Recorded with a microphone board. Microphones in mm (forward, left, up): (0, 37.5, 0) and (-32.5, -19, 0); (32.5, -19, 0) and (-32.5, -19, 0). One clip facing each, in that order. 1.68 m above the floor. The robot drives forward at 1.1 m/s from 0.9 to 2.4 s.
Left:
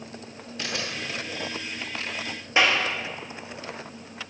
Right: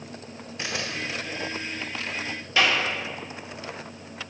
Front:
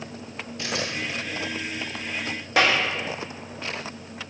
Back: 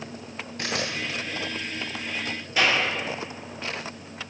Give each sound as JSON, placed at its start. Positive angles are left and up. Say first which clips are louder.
{"t": 0.6, "sound": "a camera shutter", "louder": "right 1 dB, even", "azimuth_deg": 175, "distance_m": 2.5}
{"t": 2.6, "sound": "a clap", "louder": "left 1 dB, front 2 dB", "azimuth_deg": -5, "distance_m": 2.0}